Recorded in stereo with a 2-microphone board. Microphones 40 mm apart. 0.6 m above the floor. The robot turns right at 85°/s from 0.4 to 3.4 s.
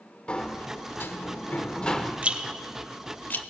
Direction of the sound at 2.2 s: 40° right (ahead or behind).